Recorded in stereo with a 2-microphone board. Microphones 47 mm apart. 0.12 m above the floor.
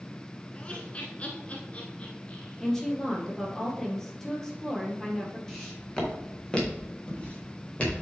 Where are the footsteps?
5° left (ahead or behind), 3 m; by 8.0 s 30° left (ahead or behind), 4 m.